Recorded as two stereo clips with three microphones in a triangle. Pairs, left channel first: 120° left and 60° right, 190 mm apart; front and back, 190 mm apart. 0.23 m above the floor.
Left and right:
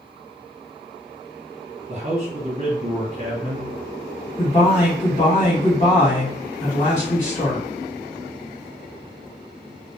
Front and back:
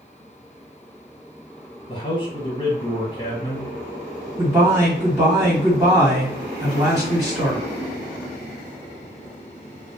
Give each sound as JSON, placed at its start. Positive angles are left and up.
{"t": 1.9, "sound": "a man speaking", "azimuth_deg": -45, "distance_m": 1.4}
{"t": 4.4, "sound": "a man speaking", "azimuth_deg": 130, "distance_m": 1.6}